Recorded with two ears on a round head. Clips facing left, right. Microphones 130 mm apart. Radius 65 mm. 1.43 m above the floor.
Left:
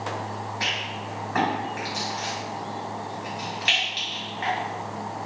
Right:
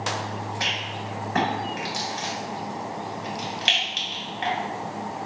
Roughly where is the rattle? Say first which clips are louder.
Even; right.